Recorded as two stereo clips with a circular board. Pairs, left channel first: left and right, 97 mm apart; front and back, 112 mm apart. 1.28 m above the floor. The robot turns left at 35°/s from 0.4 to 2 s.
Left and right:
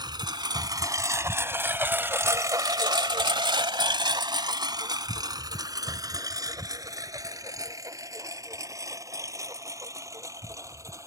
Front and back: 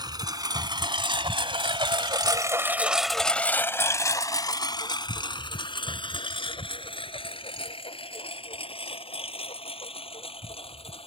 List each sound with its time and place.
0.0 s a lawn mower: 130° right; by 11.1 s 30° right